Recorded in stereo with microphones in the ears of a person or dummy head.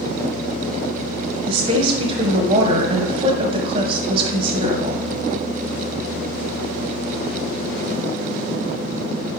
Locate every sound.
1.5 s a woman speaking: 40° right (ahead or behind), 1.1 m